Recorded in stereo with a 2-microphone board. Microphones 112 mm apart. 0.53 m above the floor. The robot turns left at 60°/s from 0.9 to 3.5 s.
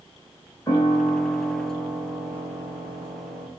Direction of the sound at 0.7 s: 30° left.